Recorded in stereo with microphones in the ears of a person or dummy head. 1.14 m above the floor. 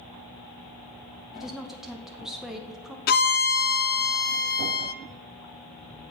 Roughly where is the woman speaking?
Centre.